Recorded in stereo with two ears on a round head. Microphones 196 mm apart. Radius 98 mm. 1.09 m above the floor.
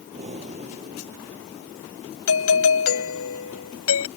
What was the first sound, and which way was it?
Breathing, 30° right (ahead or behind).